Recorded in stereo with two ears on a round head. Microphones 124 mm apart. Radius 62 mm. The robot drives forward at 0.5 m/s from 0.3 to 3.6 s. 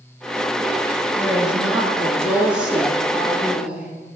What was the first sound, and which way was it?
A woman speaking, 10° right (ahead or behind).